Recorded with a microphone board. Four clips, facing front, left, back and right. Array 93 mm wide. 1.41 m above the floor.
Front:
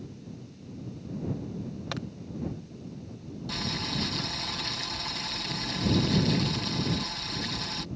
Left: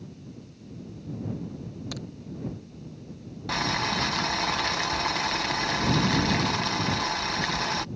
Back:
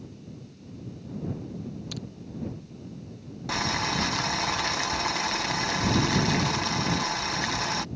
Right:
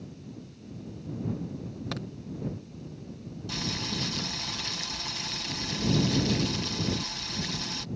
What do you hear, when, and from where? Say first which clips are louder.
1.9 s a crack: right 3 dB, front 3 dB; 25° right
3.5 s boiling: left 8 dB, back 7 dB; 130° left